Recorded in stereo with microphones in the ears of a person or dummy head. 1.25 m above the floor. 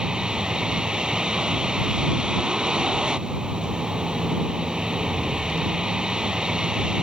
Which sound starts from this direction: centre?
A vehicle, at 0.0 s.